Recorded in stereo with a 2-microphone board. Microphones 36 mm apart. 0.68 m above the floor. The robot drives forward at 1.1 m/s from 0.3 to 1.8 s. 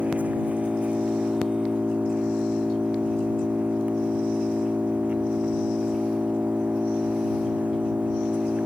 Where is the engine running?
45° right (ahead or behind); by 8.7 s 50° right (ahead or behind).